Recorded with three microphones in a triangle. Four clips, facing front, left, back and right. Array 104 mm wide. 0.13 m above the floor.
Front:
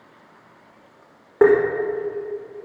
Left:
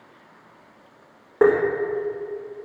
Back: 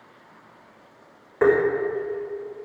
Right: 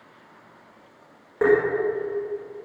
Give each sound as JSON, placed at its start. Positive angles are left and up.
{"t": 1.4, "sound": "tapping", "azimuth_deg": 30, "distance_m": 5.0}